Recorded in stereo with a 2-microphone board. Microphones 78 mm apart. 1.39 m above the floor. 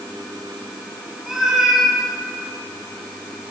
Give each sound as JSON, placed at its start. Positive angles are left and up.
{"t": 1.3, "sound": "a cat meowing", "side_deg": -5, "distance_m": 8.5}